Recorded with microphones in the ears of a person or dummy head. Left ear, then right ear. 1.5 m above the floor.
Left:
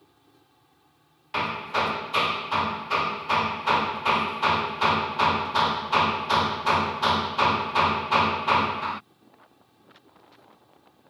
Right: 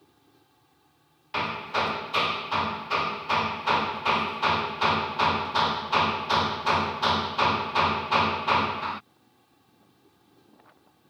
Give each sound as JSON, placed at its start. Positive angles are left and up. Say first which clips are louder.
{"t": 0.0, "sound": "an insect", "louder": "left 1 dB", "side_deg": 10}
{"t": 1.3, "sound": "hammering", "louder": "left 1 dB", "side_deg": 5}